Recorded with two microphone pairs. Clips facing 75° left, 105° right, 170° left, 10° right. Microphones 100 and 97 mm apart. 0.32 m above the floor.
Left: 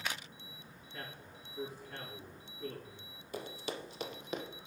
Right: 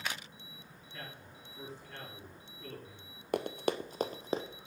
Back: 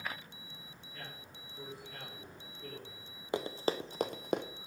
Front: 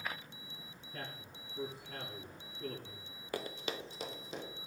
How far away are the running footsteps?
About 0.7 m.